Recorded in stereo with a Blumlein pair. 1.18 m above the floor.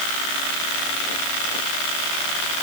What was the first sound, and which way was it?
Only background noise.